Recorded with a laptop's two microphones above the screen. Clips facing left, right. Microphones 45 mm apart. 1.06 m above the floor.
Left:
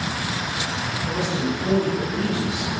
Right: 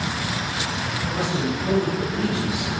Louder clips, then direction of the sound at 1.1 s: Even; 5° right (ahead or behind).